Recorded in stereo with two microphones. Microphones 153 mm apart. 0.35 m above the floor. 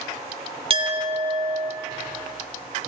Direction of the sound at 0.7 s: 40° right (ahead or behind).